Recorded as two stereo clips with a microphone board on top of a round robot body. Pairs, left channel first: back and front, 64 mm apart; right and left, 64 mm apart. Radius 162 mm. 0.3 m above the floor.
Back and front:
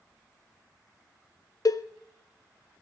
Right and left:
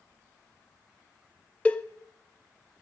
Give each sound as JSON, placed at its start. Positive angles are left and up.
{"t": 1.6, "sound": "a cowbell", "azimuth_deg": -160, "distance_m": 0.7}